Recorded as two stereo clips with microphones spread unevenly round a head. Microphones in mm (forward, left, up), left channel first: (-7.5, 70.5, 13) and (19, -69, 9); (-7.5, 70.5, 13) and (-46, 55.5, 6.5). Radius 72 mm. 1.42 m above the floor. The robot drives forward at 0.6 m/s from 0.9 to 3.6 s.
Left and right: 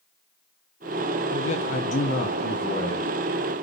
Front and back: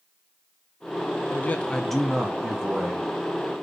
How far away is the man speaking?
About 0.5 m.